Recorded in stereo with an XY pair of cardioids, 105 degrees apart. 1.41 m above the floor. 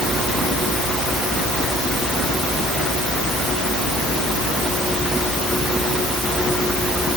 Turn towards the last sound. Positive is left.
No sound to turn to.